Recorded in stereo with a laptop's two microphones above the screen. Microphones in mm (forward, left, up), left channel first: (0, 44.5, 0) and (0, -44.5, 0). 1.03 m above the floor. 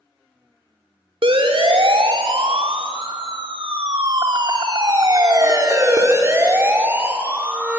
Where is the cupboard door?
No cupboard door in this recording.